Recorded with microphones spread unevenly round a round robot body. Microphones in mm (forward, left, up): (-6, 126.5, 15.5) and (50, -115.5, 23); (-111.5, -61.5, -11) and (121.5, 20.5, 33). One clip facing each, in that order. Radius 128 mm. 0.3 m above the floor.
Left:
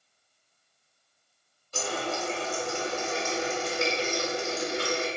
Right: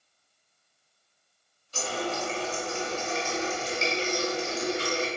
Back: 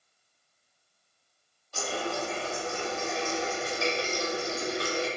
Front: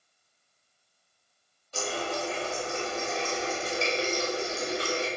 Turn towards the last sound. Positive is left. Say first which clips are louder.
# even, even
turn(degrees=90)